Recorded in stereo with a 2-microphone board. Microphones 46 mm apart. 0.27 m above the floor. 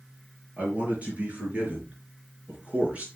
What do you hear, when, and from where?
0.6 s a man speaking: 35° right (ahead or behind), 5 m; by 3.1 s 30° right (ahead or behind), 3.5 m